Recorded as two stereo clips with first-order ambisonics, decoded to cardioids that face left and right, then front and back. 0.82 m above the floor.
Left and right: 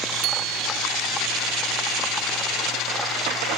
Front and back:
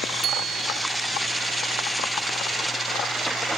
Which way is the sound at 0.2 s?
125° right.